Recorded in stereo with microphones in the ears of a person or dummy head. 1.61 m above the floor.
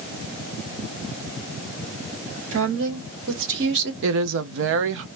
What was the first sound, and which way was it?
A woman speaking, 75° right (ahead or behind).